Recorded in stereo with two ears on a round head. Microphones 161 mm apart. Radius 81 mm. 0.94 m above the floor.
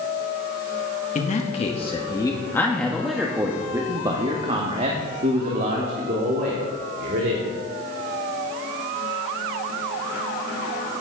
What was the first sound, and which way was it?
A man speaking, 40° left (ahead or behind).